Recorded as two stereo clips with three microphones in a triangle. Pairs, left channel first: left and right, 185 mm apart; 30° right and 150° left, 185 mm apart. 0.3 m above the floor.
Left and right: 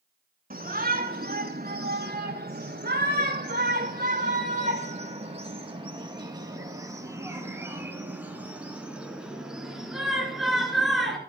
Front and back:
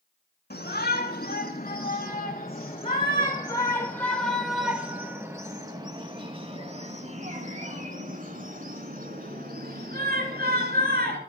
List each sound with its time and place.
0.5 s a shout: 55° right, 2.5 m; by 11.2 s straight behind, 4.5 m